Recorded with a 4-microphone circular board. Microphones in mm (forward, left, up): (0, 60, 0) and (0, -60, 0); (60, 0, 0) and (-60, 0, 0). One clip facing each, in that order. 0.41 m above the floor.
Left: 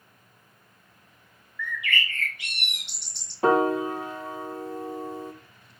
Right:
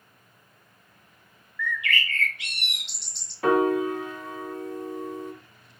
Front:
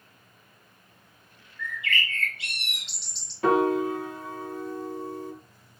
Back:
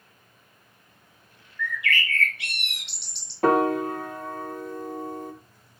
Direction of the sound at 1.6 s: 165° left.